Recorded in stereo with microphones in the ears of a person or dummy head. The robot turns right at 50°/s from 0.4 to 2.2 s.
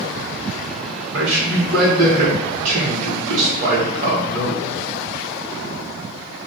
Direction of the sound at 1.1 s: 100° right.